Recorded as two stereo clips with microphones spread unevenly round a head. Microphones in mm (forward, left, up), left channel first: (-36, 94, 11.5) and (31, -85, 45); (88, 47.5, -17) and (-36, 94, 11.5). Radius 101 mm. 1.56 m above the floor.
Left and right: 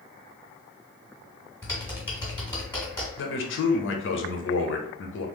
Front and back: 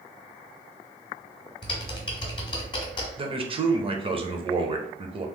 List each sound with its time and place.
1.6 s typing on a keyboard: 20° left, 1.4 m
3.2 s a man speaking: 105° left, 0.8 m